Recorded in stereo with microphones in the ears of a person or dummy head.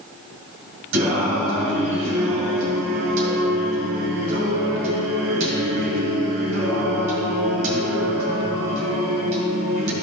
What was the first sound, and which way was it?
Singing, 70° right (ahead or behind).